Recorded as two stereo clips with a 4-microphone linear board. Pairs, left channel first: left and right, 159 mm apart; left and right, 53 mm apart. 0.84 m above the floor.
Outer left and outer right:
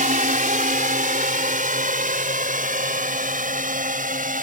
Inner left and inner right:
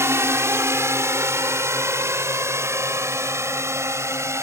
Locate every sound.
0.0 s a drone: 60° right (ahead or behind)